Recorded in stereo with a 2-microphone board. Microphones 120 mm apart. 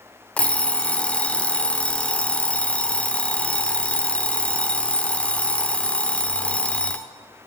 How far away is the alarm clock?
About 0.6 m.